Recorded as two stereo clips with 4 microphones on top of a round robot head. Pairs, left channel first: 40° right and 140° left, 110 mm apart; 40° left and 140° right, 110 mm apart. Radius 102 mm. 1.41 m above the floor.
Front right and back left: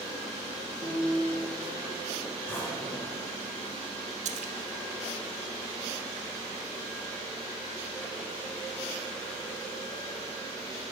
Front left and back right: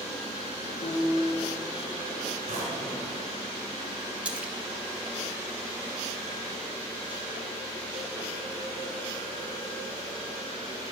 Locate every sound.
0.8 s a piano: 75° left, 3 m
2.5 s a drawer: 110° right, 4 m
4.2 s a splash: 145° left, 1.1 m